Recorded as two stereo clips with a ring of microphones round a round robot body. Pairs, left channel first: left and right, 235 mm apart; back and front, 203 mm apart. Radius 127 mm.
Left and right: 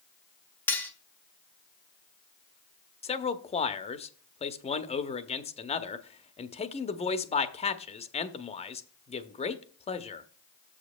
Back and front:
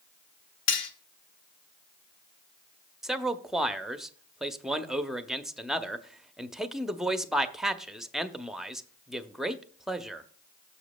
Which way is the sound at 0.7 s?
170° left.